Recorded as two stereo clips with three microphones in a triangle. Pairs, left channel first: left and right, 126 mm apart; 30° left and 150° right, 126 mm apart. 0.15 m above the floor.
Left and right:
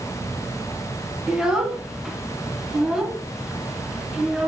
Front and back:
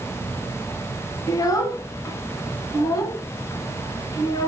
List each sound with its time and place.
1.3 s a child speaking: 10° right, 0.7 m